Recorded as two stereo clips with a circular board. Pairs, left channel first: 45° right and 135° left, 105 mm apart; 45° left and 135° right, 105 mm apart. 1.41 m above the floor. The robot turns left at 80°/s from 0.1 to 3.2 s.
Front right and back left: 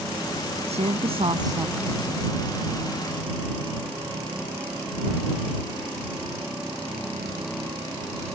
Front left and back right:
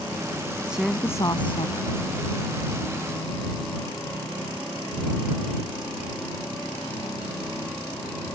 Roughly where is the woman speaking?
Behind left.